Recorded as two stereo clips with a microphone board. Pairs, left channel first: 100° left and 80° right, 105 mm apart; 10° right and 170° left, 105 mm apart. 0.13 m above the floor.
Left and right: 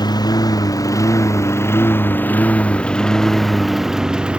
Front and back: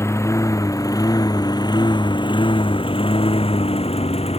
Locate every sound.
0.0 s a lawn mower: 50° left; by 4.4 s straight ahead